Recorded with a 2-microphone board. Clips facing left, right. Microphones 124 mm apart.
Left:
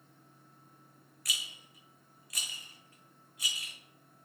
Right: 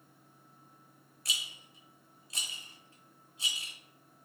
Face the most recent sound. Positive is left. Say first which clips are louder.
# even
turn(degrees=-25)  # may be behind; listen again after turning